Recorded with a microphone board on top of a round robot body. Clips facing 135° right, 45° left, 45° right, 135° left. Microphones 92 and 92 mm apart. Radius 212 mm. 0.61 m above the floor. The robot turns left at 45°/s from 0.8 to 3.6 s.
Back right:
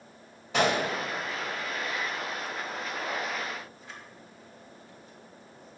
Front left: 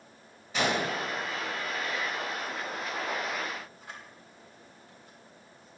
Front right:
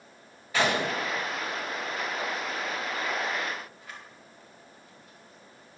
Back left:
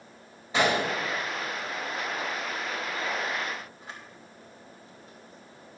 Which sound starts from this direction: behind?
A gunshot, at 0.5 s.